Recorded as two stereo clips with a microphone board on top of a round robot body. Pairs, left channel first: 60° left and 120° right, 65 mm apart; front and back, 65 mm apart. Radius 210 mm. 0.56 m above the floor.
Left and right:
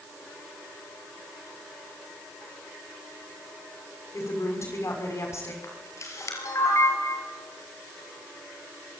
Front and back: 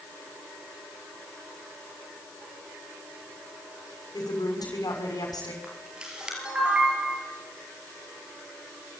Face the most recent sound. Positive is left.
turn(degrees=105)